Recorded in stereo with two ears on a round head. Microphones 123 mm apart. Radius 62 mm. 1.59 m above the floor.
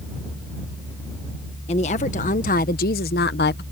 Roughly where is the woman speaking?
Left.